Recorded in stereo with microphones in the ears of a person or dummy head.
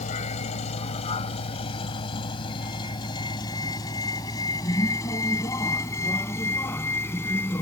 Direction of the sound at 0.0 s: 40° left (ahead or behind).